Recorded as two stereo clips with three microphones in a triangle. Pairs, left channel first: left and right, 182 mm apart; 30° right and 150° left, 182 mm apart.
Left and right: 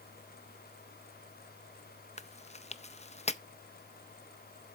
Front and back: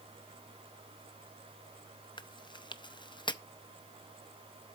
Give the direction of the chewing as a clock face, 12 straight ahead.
11 o'clock.